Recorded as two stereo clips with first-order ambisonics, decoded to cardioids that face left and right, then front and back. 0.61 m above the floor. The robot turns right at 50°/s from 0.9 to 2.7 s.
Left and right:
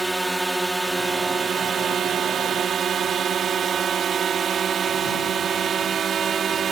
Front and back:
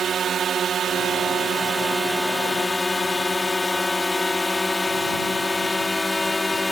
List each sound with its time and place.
0.0 s a drone: 165° right; by 6.7 s 75° right